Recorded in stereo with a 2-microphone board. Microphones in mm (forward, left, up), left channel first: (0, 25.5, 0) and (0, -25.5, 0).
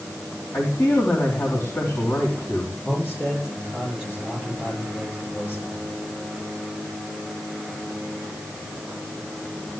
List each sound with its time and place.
0.5 s a man speaking: 70° left (ahead or behind), 3.5 m
2.9 s a man speaking: 40° left (ahead or behind), 9 m